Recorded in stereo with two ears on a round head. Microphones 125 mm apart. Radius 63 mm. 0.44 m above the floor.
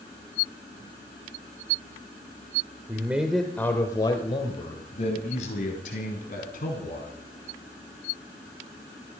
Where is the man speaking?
20° right (ahead or behind), 1.2 m; by 7.1 s 65° left (ahead or behind), 4 m.